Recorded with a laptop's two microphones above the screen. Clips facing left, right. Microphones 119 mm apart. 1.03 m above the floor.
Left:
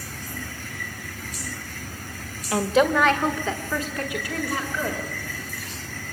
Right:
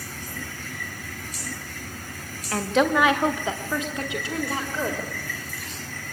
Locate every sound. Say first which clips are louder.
2.5 s a woman speaking: left 2 dB; 15° left (ahead or behind), 1.3 m; by 5.0 s 30° right (ahead or behind), 4 m